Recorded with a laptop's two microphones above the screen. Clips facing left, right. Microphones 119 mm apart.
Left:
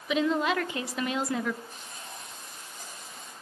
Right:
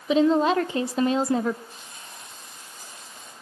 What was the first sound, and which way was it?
A woman speaking, 30° right (ahead or behind).